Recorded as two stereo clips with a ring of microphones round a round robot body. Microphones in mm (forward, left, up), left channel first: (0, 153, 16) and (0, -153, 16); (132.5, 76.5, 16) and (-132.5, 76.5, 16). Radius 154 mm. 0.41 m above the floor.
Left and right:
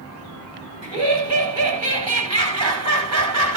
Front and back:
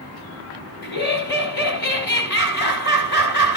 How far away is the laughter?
About 3 m.